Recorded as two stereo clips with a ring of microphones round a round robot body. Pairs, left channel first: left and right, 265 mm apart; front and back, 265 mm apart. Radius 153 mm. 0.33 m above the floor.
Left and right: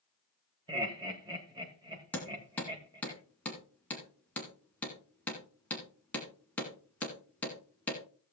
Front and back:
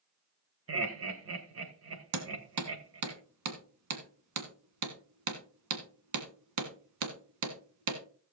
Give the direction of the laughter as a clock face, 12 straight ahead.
5 o'clock.